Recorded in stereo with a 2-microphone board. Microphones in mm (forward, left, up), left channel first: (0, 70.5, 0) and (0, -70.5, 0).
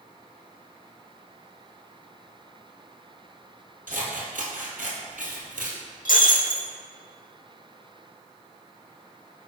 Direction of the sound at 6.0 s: 85° left.